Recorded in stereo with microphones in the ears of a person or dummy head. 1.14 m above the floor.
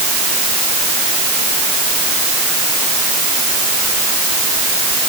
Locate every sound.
Only background noise.